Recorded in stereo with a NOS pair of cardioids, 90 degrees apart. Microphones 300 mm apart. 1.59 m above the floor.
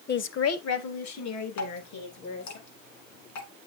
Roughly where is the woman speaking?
Ahead left.